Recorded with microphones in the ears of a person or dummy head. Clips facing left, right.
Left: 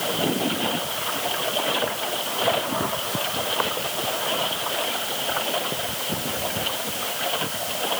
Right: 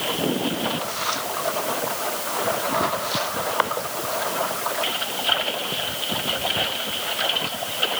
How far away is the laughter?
No laughter in this recording.